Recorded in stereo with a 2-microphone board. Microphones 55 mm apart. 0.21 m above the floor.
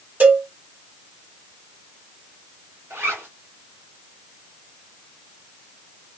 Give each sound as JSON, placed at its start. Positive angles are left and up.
{"t": 0.2, "sound": "a cowbell", "side_deg": -35, "distance_m": 1.5}
{"t": 2.9, "sound": "a zipper", "side_deg": -50, "distance_m": 1.2}